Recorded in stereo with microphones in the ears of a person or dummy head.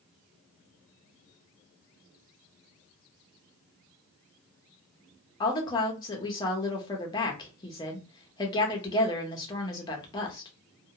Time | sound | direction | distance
5.4 | a woman speaking | 20° left (ahead or behind) | 0.8 m